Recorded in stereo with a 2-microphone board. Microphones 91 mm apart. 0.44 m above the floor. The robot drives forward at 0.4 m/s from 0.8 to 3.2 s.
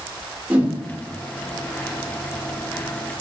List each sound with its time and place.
0.5 s a whoosh: 15° right (ahead or behind), 0.5 m